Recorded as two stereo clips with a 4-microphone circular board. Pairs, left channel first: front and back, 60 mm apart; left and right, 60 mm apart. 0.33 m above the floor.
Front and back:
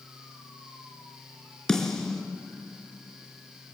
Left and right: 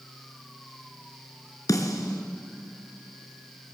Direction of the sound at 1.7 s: 80° left.